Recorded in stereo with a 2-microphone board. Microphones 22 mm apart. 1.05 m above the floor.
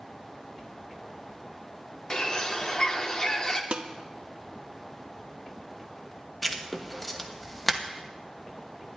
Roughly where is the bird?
Left.